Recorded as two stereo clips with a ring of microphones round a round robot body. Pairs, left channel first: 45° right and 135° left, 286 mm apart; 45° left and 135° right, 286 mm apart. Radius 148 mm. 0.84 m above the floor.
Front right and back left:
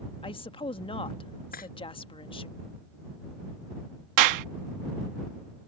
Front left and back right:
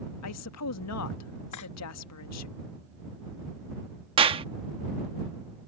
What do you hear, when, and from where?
0.2 s a woman speaking: 25° left
1.5 s cutlery clinking: 15° left
4.2 s a clap: 155° left